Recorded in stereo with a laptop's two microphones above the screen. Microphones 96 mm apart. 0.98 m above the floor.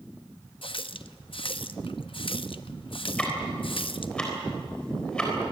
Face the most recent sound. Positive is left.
turn(degrees=10)  # may be behind; listen again after turning